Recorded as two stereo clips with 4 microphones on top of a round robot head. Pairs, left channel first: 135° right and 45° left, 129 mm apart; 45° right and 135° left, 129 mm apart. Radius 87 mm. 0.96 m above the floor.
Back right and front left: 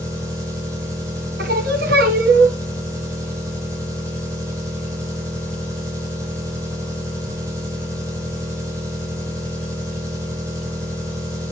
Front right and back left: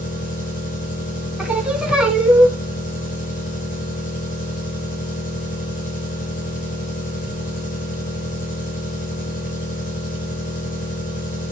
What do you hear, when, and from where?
0.0 s an engine running: 20° right, 6 m
1.4 s singing: 50° left, 1.9 m